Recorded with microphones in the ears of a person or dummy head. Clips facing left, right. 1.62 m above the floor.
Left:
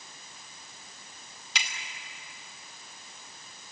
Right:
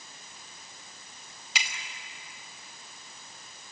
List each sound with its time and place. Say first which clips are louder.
1.6 s a finger snap: right 1 dB; centre (ahead or behind), 4.5 m